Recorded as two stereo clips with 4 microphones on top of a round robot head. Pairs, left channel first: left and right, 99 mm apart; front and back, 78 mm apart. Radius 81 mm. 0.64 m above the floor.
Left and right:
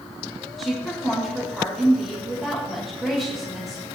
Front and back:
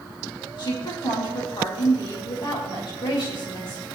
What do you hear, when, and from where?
0.6 s a woman speaking: straight ahead, 3 m